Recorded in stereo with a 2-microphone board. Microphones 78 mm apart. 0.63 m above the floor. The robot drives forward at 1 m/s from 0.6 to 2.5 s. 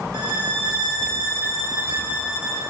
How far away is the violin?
About 1.2 m.